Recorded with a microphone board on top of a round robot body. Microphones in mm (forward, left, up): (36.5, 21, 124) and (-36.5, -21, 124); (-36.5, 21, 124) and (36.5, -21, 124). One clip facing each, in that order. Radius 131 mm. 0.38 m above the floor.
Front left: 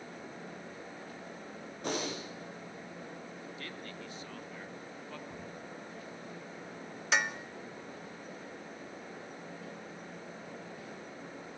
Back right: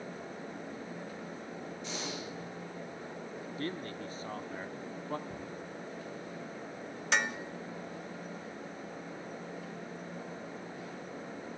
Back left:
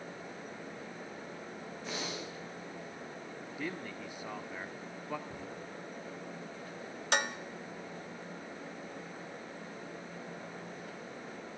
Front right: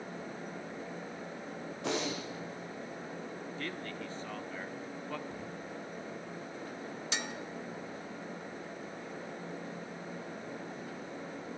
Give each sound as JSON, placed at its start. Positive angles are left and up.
{"t": 1.8, "sound": "breathing", "azimuth_deg": -10, "distance_m": 6.0}
{"t": 3.6, "sound": "a man speaking", "azimuth_deg": -135, "distance_m": 1.0}
{"t": 5.3, "sound": "a cupboard door", "azimuth_deg": -145, "distance_m": 9.5}
{"t": 7.1, "sound": "dishes clattering", "azimuth_deg": 120, "distance_m": 1.2}